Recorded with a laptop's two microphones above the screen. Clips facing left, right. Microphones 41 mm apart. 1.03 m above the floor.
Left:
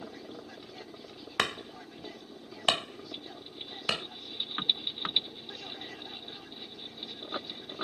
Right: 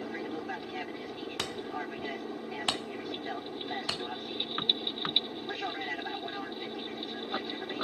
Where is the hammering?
65° left (ahead or behind).